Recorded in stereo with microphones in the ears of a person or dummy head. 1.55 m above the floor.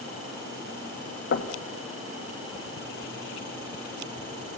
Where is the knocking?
65° left (ahead or behind), 1.8 m.